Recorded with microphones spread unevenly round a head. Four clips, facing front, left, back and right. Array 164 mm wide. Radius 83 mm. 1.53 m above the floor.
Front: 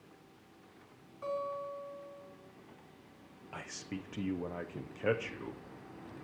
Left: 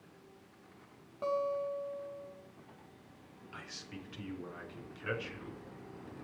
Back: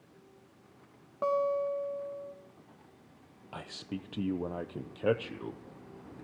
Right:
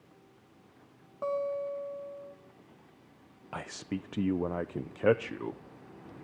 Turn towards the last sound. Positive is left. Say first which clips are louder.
# right 12 dB, back 3 dB
turn(degrees=-105)